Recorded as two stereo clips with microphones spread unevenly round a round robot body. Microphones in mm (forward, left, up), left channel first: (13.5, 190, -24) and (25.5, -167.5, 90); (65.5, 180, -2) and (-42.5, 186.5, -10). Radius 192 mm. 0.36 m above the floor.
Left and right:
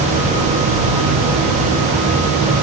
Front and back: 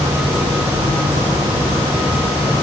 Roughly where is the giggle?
I don't hear a giggle.